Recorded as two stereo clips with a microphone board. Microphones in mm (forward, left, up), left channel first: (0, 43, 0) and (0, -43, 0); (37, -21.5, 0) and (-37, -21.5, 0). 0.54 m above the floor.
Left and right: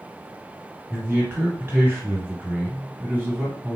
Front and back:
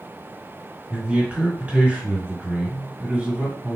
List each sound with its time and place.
0.9 s a man speaking: 125° right, 1.5 m